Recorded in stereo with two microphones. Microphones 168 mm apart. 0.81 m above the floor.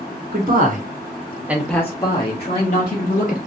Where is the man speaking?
60° right (ahead or behind), 1.7 m; by 3.4 s 55° left (ahead or behind), 2.5 m.